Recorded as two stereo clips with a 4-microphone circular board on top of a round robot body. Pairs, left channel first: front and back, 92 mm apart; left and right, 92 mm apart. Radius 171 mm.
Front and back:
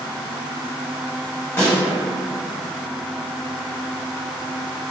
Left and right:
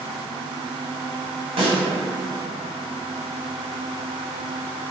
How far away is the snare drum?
About 1.6 m.